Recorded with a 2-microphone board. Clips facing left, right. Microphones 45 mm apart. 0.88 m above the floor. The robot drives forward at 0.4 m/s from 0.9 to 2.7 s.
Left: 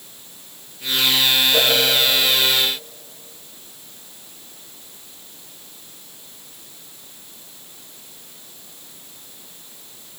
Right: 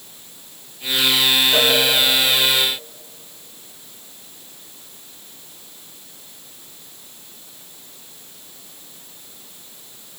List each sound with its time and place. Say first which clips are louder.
1.5 s a cowbell: right 1 dB; 25° right (ahead or behind), 6.5 m